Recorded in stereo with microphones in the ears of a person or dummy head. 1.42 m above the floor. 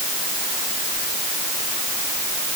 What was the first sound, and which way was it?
Only background noise.